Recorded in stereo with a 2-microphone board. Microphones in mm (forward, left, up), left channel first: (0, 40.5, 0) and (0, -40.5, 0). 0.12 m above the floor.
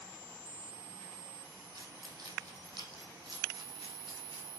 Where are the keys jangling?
55° right (ahead or behind), 3 m; by 4.5 s 70° right (ahead or behind), 4 m.